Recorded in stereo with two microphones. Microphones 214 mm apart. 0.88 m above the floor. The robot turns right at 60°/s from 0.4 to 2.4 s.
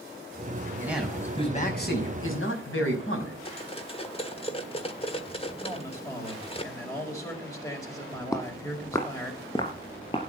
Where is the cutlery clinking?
25° left (ahead or behind), 1.5 m.